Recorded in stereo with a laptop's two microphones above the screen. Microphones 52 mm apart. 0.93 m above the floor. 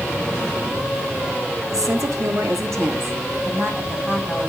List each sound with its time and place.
1.7 s a woman speaking: 75° right (ahead or behind), 1.4 m; by 4.5 s 30° right (ahead or behind), 2 m